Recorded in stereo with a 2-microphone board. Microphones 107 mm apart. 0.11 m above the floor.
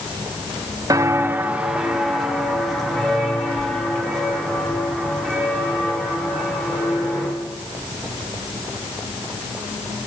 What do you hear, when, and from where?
0.9 s footsteps: 35° right (ahead or behind), 0.8 m; by 7.3 s 10° left (ahead or behind), 7 m